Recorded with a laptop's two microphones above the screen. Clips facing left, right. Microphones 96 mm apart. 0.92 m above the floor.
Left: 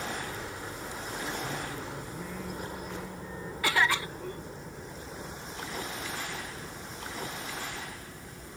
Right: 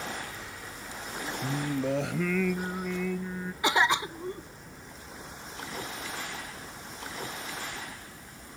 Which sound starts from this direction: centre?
A cough, at 3.6 s.